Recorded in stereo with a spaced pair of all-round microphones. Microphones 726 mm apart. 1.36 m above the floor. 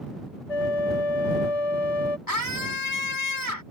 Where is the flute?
50° left (ahead or behind).